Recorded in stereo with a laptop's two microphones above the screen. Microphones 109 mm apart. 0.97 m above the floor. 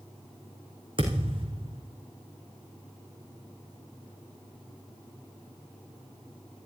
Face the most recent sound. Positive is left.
turn(degrees=-50)  # may be behind; listen again after turning